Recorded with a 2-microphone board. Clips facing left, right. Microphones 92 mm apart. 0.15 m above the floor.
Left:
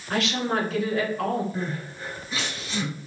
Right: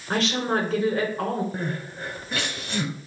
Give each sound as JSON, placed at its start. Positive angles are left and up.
{"t": 0.1, "sound": "a woman speaking", "side_deg": -35, "distance_m": 1.3}
{"t": 1.5, "sound": "crying", "side_deg": -65, "distance_m": 0.8}